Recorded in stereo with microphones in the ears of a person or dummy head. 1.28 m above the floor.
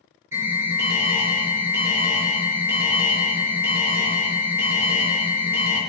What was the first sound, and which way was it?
An alarm, 15° right (ahead or behind).